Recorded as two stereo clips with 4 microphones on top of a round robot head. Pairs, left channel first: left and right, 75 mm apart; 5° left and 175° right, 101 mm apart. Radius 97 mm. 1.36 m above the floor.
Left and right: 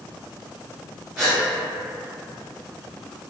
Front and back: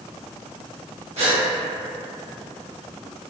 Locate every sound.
1.2 s a gasp: 175° right, 1.0 m